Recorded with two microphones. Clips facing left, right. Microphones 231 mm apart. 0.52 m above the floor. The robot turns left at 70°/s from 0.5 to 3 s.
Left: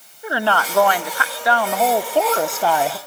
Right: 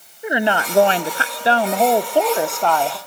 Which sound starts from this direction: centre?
A woman speaking, at 0.2 s.